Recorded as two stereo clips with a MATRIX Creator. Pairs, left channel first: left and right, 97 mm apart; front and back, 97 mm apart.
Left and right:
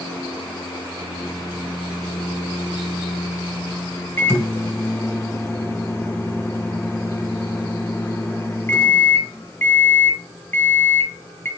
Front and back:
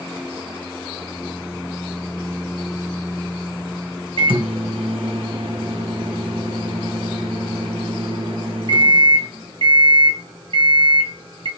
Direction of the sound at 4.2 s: 155° left.